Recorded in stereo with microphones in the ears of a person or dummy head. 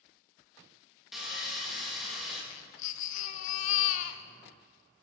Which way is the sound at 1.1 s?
Centre (ahead or behind).